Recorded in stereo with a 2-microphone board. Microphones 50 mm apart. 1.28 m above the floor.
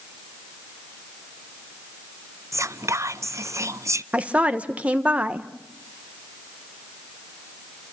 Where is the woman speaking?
30° right (ahead or behind), 1.4 m.